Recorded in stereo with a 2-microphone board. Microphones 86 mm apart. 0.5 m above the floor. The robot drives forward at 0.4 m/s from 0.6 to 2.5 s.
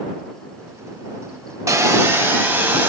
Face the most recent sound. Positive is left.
turn(degrees=-25)  # may be behind; listen again after turning